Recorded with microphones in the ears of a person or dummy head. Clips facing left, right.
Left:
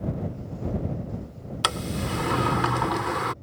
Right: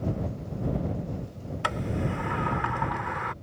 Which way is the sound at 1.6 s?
50° left (ahead or behind).